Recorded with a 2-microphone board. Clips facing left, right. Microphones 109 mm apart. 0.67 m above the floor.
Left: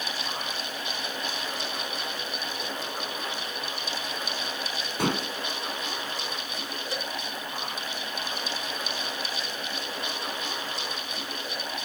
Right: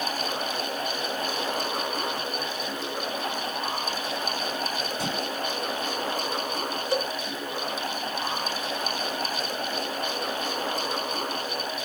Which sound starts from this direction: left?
Dishes clattering, at 5.0 s.